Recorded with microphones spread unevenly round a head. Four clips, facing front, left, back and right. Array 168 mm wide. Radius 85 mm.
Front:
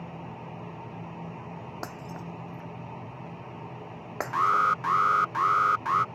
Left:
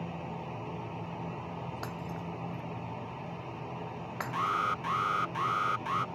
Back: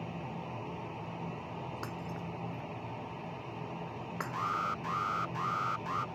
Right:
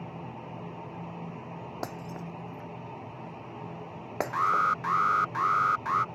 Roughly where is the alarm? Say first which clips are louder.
Right 5 dB, front 12 dB; ahead.